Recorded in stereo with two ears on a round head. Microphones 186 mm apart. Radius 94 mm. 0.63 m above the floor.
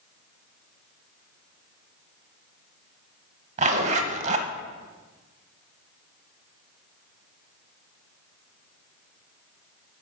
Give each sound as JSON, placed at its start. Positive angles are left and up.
{"t": 3.6, "sound": "a zipper", "side_deg": -35, "distance_m": 0.8}